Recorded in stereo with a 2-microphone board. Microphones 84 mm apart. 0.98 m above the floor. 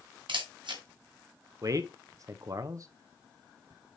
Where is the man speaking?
40° right (ahead or behind), 0.6 m.